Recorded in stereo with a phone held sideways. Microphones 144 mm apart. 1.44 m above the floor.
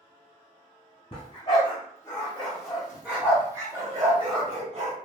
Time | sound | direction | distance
1.1 | a dog barking | 35° left (ahead or behind) | 1.4 m